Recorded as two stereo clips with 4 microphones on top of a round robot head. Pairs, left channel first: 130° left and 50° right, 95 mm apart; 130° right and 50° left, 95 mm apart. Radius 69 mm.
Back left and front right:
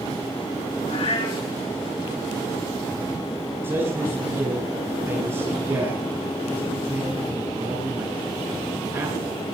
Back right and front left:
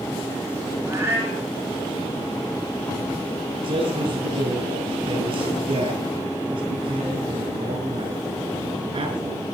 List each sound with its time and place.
0.9 s a cat meowing: 115° left, 7 m
3.6 s a man speaking: 15° left, 9 m